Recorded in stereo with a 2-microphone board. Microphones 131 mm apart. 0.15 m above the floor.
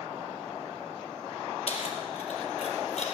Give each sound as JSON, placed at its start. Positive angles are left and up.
{"t": 1.7, "sound": "keys jangling", "side_deg": 50, "distance_m": 2.5}